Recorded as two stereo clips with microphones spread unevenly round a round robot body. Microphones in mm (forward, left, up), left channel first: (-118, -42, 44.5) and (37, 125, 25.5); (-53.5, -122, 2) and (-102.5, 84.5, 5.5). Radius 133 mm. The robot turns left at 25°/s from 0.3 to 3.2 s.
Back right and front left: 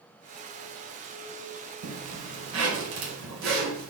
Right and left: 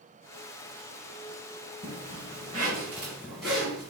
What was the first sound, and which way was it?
A zipper, 45° left.